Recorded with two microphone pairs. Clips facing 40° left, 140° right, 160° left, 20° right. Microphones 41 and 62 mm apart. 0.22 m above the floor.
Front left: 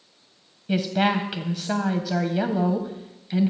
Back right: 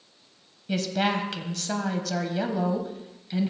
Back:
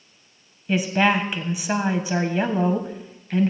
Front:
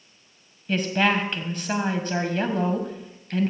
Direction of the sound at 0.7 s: 95° left.